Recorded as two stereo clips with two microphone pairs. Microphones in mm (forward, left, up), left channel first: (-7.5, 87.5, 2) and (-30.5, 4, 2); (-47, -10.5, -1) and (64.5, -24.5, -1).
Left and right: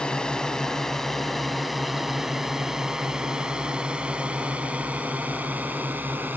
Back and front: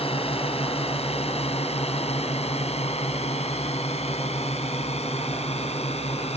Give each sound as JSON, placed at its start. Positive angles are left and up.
{"t": 0.0, "sound": "a drone", "azimuth_deg": 155}